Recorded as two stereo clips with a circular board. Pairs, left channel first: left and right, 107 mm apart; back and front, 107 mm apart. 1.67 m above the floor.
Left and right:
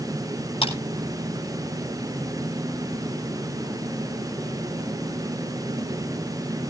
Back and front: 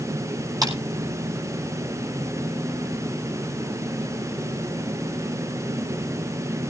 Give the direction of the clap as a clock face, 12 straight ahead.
10 o'clock.